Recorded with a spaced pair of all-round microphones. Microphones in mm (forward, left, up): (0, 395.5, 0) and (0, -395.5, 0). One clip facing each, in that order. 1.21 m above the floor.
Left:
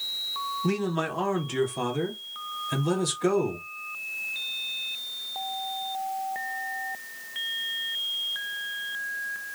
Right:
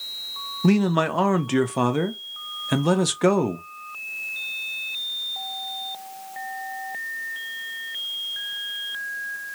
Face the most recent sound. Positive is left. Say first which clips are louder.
# right 8 dB
turn(degrees=-80)